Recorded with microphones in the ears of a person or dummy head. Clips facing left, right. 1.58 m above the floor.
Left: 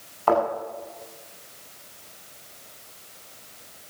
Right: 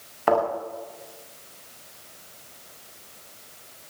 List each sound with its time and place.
0.3 s a thud: 20° right (ahead or behind), 9.5 m